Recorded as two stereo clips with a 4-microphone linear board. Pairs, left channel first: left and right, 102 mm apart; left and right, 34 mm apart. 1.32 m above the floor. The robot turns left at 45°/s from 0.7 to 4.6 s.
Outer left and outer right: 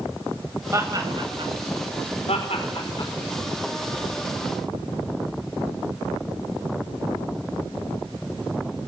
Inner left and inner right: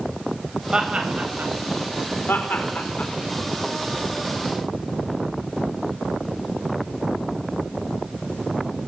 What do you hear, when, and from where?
0.7 s laughter: 25° right (ahead or behind), 8.5 m; by 1.5 s 65° right (ahead or behind), 8.5 m
2.3 s laughter: 80° left, 4.5 m; by 3.1 s 40° left (ahead or behind), 4.5 m